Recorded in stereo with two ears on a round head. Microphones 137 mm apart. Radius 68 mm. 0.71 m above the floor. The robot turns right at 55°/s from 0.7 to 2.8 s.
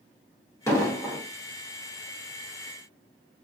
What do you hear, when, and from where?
0.7 s an explosion: 20° left (ahead or behind), 0.8 m